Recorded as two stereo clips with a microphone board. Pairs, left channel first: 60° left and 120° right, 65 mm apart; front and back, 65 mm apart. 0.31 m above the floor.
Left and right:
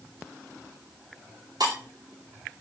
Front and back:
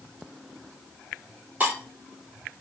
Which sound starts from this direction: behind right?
Breaking glass, at 1.6 s.